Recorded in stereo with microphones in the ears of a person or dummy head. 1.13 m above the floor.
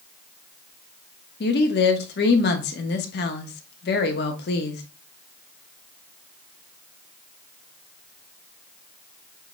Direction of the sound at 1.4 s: 50° left (ahead or behind).